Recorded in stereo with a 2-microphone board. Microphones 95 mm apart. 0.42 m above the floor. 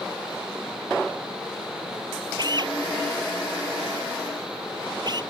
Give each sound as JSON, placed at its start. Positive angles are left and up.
{"t": 2.4, "sound": "a drill", "side_deg": -50}